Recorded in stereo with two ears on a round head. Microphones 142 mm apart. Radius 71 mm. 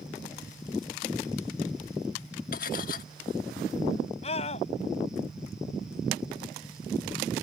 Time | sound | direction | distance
2.5 | cutlery clinking | 60° left (ahead or behind) | ?
4.2 | a scream | 40° left (ahead or behind) | ?